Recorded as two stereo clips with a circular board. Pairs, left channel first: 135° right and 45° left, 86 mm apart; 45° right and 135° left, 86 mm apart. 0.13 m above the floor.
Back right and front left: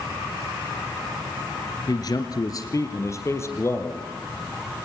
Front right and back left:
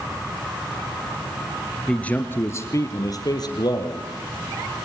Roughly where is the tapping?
No tapping in this recording.